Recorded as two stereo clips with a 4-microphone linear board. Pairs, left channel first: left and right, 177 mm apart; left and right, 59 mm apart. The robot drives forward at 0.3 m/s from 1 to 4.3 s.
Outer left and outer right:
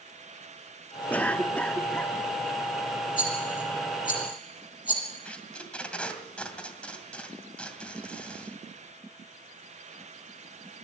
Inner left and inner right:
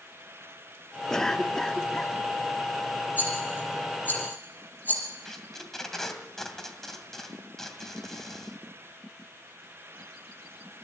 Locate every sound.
1.1 s a cough: 10° left (ahead or behind), 1.0 m; by 2.1 s 5° left (ahead or behind), 1.2 m
3.2 s a rattle: 30° left (ahead or behind), 5.5 m
5.2 s tape being pulled: 5° left (ahead or behind), 2.5 m